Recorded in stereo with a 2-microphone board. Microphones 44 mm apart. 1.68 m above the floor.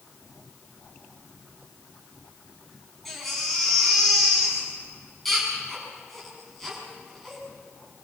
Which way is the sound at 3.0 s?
5° left (ahead or behind).